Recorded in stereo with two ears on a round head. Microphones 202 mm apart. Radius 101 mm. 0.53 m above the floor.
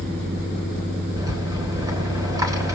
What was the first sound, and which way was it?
A rattle, 15° right (ahead or behind).